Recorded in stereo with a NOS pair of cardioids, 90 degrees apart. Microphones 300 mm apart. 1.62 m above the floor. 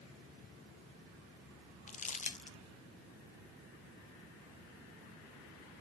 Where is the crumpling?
25° left, 0.7 m.